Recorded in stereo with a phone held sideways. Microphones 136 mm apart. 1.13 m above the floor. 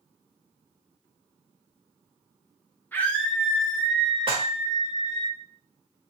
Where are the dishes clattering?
40° right (ahead or behind), 0.9 m.